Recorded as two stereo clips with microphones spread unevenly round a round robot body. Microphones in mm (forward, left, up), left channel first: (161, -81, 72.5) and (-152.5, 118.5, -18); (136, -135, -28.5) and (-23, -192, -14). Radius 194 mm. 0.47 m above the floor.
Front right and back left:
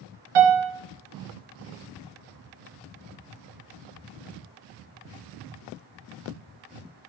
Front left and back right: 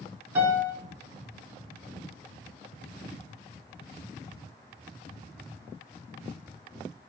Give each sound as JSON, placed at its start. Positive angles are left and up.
{"t": 0.3, "sound": "a piano", "azimuth_deg": 140, "distance_m": 1.3}